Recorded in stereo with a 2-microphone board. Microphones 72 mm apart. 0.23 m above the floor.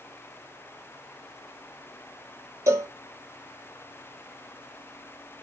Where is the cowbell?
45° right (ahead or behind), 0.6 m.